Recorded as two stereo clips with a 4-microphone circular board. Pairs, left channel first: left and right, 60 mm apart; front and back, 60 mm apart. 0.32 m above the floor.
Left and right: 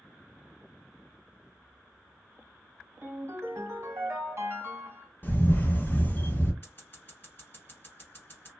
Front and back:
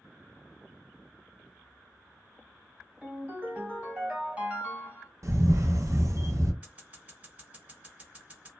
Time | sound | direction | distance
3.0 | a ringtone | 115° right | 1.3 m
5.2 | a camera shutter | 145° left | 0.6 m
6.6 | scissors | 125° left | 1.8 m